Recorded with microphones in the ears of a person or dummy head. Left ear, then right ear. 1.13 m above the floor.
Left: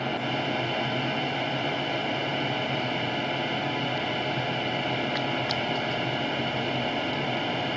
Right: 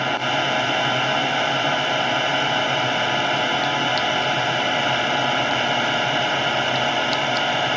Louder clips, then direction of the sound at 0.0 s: Right 8 dB; 45° right (ahead or behind).